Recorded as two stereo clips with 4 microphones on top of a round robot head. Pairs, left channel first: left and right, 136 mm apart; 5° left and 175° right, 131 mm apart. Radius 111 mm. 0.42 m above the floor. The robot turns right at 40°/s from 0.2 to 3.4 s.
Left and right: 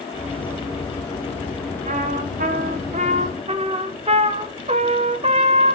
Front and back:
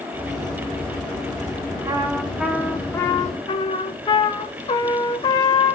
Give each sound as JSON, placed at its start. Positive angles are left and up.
{"t": 1.9, "sound": "a trumpet", "azimuth_deg": -115, "distance_m": 1.3}